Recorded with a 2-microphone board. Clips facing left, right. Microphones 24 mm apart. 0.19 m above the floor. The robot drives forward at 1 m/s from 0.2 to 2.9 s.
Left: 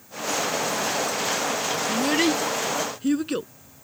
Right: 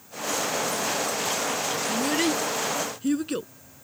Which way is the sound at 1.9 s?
20° left (ahead or behind).